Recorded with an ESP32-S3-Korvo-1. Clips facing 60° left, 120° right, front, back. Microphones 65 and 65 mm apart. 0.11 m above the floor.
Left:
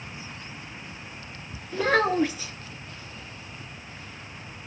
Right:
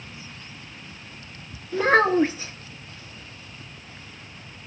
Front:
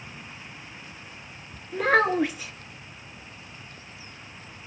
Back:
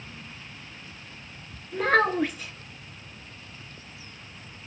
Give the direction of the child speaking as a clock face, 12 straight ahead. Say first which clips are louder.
Right 4 dB, front 1 dB; 3 o'clock.